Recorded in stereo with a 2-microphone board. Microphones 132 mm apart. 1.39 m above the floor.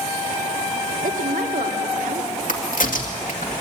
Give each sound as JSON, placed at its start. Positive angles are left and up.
{"t": 1.0, "sound": "a woman speaking", "side_deg": -85, "distance_m": 3.0}
{"t": 2.5, "sound": "a crack", "side_deg": 80, "distance_m": 2.5}